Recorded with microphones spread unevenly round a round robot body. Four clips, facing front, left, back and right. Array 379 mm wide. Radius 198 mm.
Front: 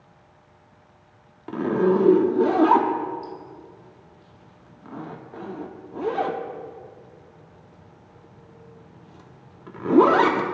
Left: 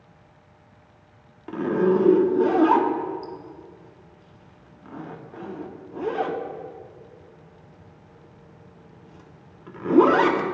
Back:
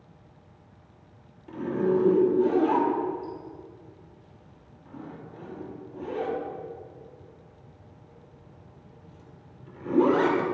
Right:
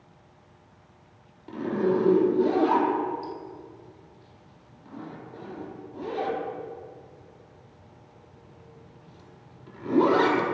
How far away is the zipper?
About 0.9 m.